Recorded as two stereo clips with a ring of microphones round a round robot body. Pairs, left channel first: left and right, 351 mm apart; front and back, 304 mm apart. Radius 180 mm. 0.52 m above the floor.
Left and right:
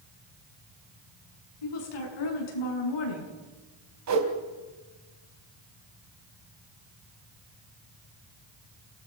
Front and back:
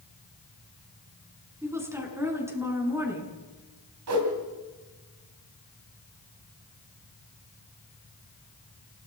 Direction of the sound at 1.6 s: 100° left.